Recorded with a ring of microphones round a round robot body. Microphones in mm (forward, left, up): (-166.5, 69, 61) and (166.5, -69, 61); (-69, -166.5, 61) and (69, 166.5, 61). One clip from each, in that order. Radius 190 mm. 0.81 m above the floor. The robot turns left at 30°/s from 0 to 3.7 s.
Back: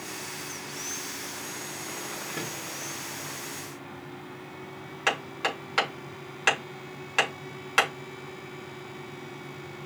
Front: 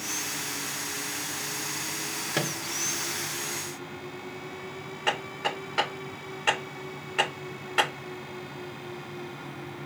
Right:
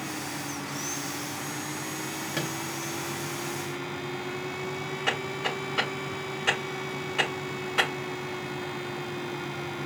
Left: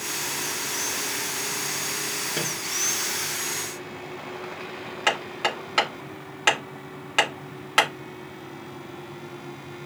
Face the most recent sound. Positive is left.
turn(degrees=115)